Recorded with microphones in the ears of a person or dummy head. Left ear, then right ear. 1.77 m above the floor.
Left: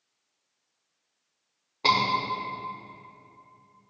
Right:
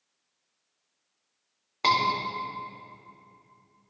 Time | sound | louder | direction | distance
1.8 | a scream | left 1 dB | 50° right (ahead or behind) | 4 m